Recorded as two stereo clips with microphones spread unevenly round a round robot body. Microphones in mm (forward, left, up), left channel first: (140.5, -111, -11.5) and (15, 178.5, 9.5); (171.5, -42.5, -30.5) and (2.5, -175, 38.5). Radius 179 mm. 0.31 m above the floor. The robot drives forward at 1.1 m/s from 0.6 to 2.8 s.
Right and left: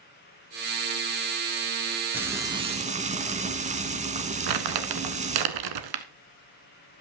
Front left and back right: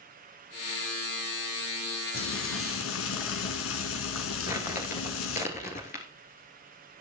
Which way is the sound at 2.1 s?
30° left.